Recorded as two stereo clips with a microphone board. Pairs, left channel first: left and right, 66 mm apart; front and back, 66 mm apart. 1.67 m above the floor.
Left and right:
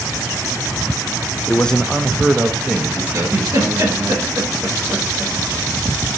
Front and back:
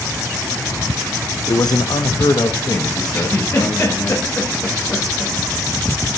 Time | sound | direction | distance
1.5 | a man speaking | 25° left | 0.6 m
3.1 | a giggle | 45° right | 3.5 m